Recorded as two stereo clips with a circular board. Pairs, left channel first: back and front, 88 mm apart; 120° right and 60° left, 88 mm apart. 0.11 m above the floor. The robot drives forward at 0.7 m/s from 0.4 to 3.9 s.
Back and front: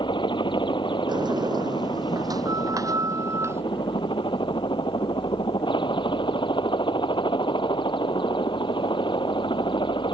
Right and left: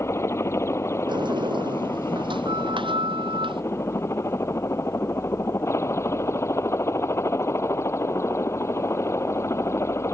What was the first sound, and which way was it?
A helicopter, 175° right.